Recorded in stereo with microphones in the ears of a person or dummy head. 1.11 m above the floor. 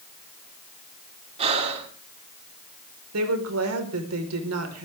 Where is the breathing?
35° right (ahead or behind), 3.5 m.